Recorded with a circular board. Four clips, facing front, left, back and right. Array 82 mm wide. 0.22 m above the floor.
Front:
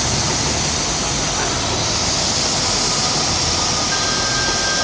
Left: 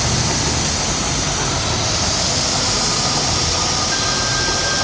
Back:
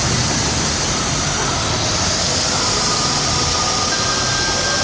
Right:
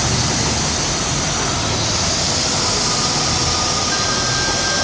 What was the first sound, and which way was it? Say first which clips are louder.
An insect: even, back 1 dB; 170° right.